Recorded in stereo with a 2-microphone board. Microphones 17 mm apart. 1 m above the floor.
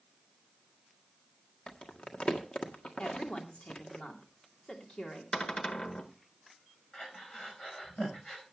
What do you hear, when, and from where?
1.7 s crumpling: 80° left, 1.6 m
3.0 s a woman speaking: 75° left (ahead or behind), 3 m
5.3 s a cupboard door: 50° left (ahead or behind), 1.1 m
6.9 s breathing: 50° left (ahead or behind), 4.5 m